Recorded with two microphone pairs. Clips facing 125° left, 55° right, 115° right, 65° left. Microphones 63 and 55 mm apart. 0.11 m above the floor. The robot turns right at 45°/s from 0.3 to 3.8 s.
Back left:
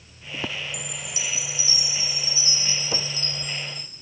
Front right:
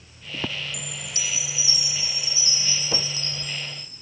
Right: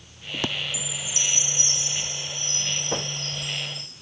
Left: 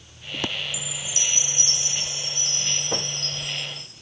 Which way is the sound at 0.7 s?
10° right.